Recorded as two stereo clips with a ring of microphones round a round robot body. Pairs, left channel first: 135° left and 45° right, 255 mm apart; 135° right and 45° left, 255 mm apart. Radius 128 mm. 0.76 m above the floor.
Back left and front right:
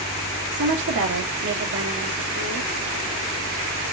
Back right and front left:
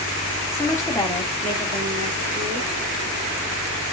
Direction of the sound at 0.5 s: 60° right.